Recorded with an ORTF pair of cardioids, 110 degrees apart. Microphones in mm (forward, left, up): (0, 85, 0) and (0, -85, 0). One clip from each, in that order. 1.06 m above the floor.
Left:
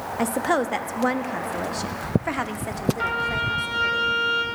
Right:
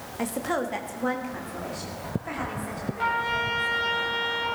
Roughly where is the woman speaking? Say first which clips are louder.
Left 5 dB; ahead left.